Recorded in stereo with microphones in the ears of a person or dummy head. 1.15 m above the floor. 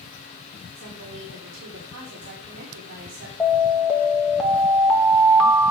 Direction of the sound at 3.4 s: 10° left (ahead or behind).